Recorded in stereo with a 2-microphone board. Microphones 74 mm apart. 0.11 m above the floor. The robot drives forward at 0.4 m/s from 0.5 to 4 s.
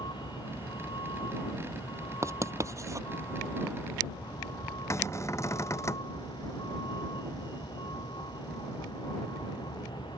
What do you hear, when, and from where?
0.0 s a vehicle: 85° left
2.2 s writing: 40° right (ahead or behind); by 3.1 s 45° right (ahead or behind)
4.9 s a cupboard door: 40° left (ahead or behind)